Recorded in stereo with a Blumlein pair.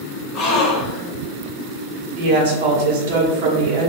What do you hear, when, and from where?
0.3 s a gasp: 25° left, 0.9 m
2.1 s a woman speaking: 45° right, 1.1 m